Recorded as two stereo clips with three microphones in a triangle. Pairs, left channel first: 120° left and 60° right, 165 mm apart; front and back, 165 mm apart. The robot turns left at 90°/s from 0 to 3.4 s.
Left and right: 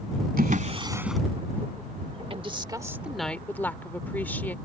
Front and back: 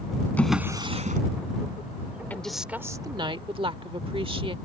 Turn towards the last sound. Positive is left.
turn(degrees=-170)